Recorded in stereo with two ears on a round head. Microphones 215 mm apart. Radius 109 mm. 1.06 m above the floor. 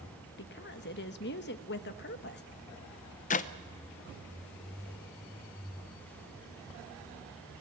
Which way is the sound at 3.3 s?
30° left (ahead or behind).